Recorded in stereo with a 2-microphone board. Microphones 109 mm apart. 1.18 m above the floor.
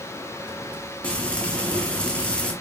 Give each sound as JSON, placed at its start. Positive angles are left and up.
{"t": 1.0, "sound": "frying", "side_deg": 10, "distance_m": 2.5}